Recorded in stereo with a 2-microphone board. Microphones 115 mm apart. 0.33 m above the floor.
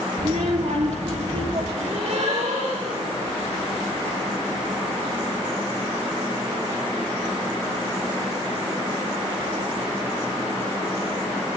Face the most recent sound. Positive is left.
turn(degrees=-80)